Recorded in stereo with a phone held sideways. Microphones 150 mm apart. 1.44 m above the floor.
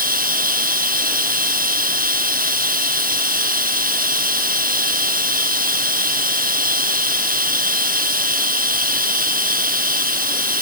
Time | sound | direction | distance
0.0 | running water | 70° right (ahead or behind) | ?